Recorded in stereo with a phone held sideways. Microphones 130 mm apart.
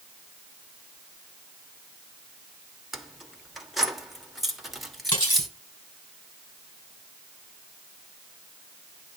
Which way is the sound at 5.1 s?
35° left (ahead or behind).